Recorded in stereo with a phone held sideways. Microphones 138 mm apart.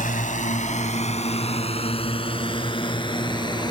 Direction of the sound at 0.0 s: 80° left.